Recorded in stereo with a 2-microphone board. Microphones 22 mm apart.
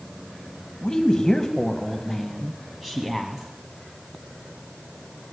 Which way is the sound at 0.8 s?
30° left (ahead or behind).